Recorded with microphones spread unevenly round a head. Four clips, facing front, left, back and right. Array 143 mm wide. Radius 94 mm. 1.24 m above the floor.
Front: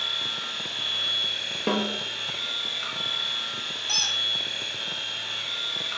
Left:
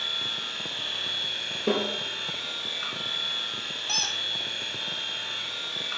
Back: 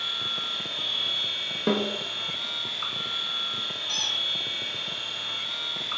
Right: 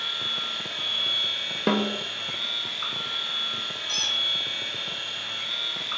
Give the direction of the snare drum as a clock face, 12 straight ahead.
2 o'clock.